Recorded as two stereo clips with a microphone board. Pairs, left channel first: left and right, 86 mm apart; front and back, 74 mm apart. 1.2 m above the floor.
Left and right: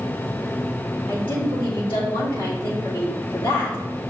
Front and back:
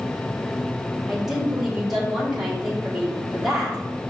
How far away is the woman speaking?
About 2.5 m.